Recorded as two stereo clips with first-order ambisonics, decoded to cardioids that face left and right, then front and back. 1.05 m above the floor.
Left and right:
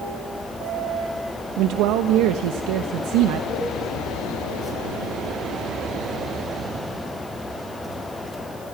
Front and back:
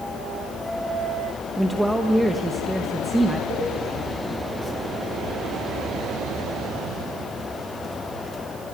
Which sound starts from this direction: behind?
A cowbell, at 3.5 s.